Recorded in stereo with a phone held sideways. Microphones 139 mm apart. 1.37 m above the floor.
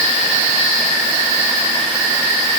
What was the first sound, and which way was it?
Only background noise.